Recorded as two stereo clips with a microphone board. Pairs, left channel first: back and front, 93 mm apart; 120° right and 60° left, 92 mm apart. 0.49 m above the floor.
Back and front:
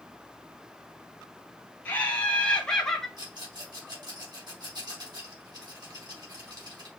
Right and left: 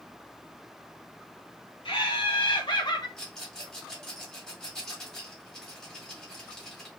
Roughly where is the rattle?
Ahead right.